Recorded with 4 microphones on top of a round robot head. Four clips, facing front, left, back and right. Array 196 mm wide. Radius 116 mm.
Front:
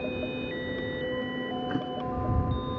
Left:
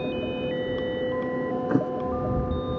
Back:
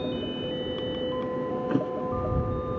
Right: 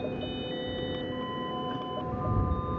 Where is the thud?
110° left.